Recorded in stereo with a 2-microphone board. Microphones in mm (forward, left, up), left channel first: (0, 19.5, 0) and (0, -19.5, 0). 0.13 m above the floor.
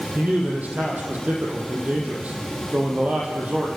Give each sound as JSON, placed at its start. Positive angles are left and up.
{"t": 0.1, "sound": "a man speaking", "side_deg": -40, "distance_m": 5.5}